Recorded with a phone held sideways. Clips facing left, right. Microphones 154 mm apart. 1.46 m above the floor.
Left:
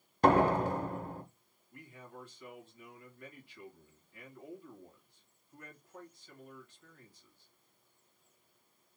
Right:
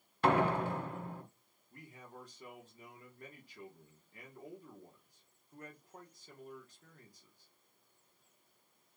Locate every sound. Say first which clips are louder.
0.2 s a door slam: left 4 dB; 40° left (ahead or behind), 0.9 m
1.7 s a man speaking: left 2 dB; 40° right (ahead or behind), 1.4 m